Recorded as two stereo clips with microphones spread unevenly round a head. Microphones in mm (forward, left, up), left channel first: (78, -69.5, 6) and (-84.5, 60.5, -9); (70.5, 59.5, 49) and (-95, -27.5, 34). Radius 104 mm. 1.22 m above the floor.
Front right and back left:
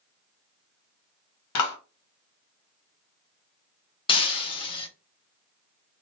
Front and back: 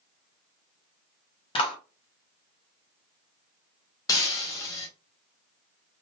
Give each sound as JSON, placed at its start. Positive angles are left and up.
{"t": 1.6, "sound": "a clap", "azimuth_deg": -40, "distance_m": 1.2}
{"t": 4.1, "sound": "breaking glass", "azimuth_deg": -20, "distance_m": 0.6}